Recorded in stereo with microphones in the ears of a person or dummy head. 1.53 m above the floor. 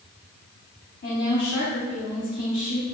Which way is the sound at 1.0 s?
55° left (ahead or behind).